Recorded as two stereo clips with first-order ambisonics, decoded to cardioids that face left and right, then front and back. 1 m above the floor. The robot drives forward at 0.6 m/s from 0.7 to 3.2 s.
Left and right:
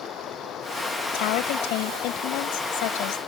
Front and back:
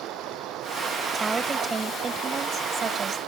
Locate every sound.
0.0 s running water: 140° left
1.1 s a woman speaking: 105° left; by 3.2 s 115° left